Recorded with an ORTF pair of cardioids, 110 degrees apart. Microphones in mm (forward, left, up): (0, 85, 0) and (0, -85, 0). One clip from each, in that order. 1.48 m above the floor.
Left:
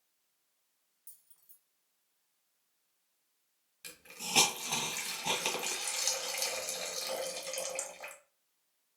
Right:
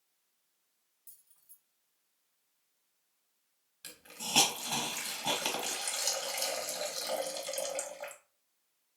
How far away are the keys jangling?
About 1.2 m.